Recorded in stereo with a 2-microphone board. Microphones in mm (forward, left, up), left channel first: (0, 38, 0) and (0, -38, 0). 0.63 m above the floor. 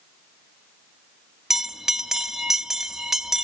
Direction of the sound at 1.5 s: 5° right (ahead or behind).